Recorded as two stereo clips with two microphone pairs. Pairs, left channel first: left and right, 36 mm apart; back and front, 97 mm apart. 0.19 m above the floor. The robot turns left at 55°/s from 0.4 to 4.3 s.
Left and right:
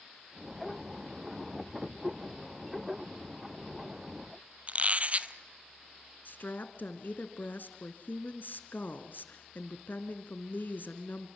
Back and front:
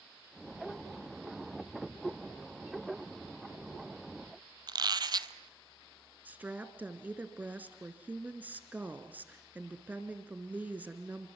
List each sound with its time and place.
4.7 s a squeak: 45° right, 0.7 m
6.2 s a woman speaking: 70° left, 2.0 m